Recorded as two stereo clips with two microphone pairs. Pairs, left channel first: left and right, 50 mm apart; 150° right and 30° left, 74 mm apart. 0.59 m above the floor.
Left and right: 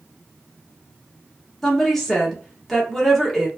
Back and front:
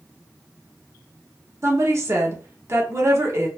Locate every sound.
1.6 s a woman speaking: 10° left, 1.1 m